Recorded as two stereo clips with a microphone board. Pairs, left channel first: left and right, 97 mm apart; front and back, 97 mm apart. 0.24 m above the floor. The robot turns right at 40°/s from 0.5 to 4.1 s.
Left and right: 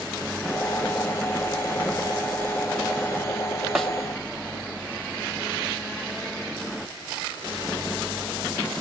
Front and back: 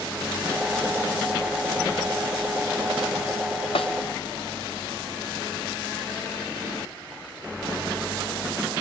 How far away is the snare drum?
About 1.3 m.